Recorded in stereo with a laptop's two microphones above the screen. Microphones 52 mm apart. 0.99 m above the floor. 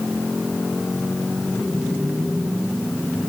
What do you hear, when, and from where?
Only background noise.